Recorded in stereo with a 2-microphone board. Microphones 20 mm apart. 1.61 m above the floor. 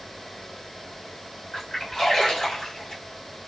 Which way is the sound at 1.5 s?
20° left (ahead or behind).